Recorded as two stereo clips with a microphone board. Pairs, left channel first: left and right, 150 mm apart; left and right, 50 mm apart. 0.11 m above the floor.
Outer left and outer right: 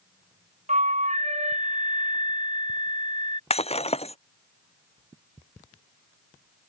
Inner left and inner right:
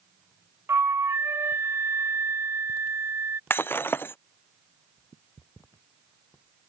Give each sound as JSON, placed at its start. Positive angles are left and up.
{"t": 0.7, "sound": "a flute", "side_deg": -50}
{"t": 3.5, "sound": "breaking glass", "side_deg": 45}